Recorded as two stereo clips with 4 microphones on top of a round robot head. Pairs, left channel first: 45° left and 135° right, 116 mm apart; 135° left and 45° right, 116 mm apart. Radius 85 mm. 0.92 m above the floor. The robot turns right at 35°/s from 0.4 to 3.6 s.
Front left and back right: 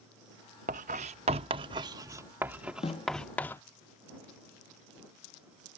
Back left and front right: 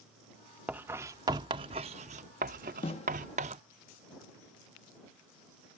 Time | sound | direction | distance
0.7 | writing | 125° right | ?
2.8 | a snare drum | 95° left | ?